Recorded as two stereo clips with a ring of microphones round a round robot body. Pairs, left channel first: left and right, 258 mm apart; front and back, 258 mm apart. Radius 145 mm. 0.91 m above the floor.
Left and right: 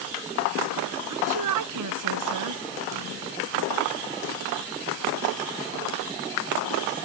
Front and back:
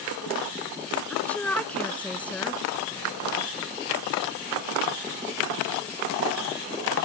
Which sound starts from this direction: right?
A woman speaking, at 1.1 s.